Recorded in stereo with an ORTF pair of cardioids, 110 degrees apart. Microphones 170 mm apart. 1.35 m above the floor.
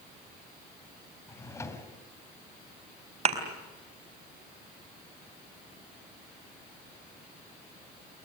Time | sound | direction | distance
1.3 | a drawer | 15° left | 3 m
3.2 | a thud | 40° right | 4 m